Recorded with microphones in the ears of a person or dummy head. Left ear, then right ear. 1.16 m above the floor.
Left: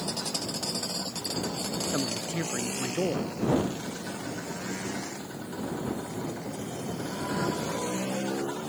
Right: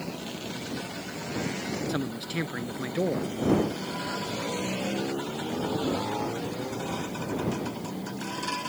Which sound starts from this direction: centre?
A man speaking, at 1.9 s.